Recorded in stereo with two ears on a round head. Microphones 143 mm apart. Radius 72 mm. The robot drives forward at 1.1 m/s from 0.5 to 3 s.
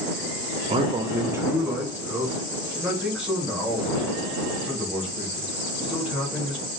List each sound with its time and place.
0.7 s a man speaking: 35° right (ahead or behind), 0.5 m; by 6.6 s 5° right (ahead or behind), 3 m